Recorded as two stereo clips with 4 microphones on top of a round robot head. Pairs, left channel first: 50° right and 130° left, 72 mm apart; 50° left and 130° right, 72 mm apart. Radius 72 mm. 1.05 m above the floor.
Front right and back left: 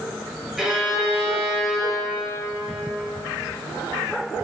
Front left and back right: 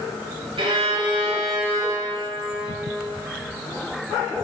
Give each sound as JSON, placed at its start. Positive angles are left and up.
{"t": 0.6, "sound": "a violin", "azimuth_deg": -145, "distance_m": 1.0}